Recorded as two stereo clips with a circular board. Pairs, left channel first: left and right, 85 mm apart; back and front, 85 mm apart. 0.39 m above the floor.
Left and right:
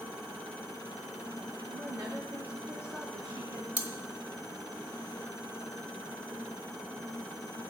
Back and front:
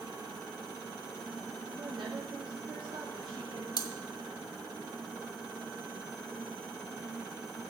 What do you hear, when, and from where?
1.7 s a woman speaking: 5° left, 3 m
3.8 s cutlery clinking: 160° right, 1.2 m